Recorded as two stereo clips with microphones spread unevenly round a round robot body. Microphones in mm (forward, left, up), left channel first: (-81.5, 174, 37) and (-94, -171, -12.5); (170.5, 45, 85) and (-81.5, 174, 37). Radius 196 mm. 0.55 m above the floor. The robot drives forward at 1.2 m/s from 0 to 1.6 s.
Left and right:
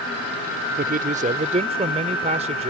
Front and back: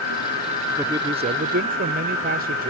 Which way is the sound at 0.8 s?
135° right.